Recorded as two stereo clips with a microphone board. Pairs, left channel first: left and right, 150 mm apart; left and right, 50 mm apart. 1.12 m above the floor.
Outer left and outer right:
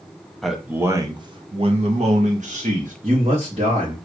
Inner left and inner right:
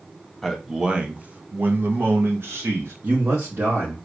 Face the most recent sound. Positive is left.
turn(degrees=-45)  # may be behind; listen again after turning